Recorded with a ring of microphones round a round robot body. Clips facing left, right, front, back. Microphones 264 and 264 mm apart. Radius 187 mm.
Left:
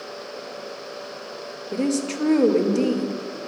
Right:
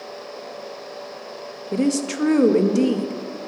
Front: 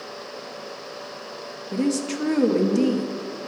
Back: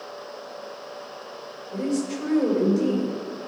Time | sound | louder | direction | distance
1.7 | a woman speaking | right 3 dB, front 2 dB | 15° right | 0.9 m